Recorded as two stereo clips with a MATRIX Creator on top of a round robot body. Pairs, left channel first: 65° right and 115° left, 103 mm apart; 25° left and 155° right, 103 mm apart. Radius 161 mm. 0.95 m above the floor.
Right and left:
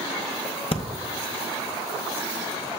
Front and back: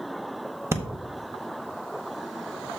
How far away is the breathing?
About 0.9 m.